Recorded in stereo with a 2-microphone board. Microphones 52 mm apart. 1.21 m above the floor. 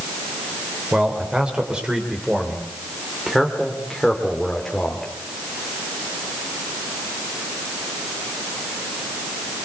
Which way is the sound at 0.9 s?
20° right (ahead or behind).